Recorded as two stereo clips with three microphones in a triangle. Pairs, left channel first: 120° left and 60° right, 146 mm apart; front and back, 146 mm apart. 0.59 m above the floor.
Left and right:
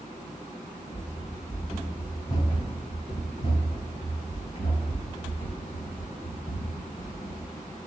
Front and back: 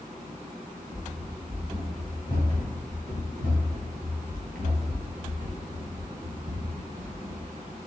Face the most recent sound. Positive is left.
turn(degrees=150)